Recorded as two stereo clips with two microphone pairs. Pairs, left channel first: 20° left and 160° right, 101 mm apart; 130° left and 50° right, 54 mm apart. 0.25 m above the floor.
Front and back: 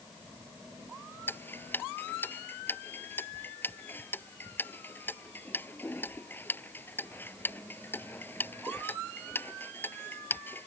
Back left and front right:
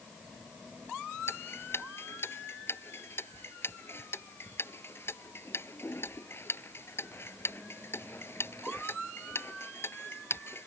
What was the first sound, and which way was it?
Ticking, 90° left.